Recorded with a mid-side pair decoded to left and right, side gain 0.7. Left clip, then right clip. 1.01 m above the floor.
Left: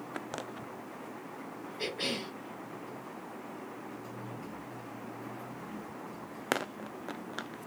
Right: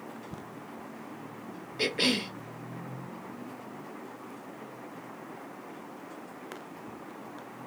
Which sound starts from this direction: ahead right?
A cough, at 1.8 s.